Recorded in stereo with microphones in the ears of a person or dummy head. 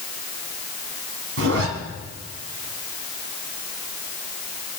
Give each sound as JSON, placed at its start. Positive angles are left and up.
{"t": 1.4, "sound": "a zipper", "side_deg": -75, "distance_m": 2.5}